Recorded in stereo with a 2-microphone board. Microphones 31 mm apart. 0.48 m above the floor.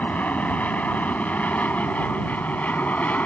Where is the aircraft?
60° left (ahead or behind); by 3.3 s 65° left (ahead or behind).